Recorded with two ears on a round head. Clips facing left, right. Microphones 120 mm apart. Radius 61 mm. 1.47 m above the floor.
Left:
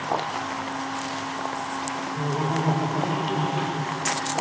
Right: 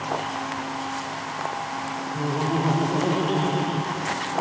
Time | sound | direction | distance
2.1 | laughter | 5° right (ahead or behind) | 1.1 m